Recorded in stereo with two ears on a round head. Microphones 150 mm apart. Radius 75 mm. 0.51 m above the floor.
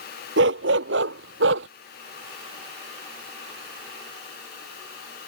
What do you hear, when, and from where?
0.4 s a dog barking: 80° right; by 1.7 s 85° right